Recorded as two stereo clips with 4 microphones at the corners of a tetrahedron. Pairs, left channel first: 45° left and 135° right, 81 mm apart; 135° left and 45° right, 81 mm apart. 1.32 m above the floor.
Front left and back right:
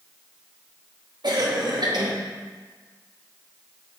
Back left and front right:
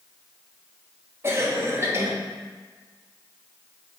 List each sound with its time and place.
1.2 s a cough: 105° right, 1.2 m